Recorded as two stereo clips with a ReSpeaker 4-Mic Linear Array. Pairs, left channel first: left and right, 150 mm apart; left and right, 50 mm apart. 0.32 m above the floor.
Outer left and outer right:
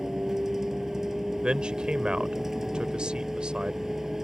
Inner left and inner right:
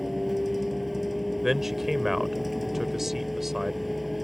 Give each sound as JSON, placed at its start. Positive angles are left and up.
{"t": 0.0, "sound": "a vehicle", "side_deg": -5}
{"t": 1.4, "sound": "a man speaking", "side_deg": -5}